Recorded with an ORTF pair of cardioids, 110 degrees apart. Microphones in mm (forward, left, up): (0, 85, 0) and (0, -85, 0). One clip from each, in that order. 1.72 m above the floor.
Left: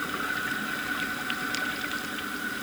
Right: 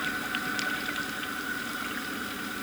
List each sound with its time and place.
Only background noise.